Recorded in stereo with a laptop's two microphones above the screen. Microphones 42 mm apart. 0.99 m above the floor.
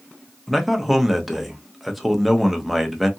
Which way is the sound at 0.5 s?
Centre (ahead or behind).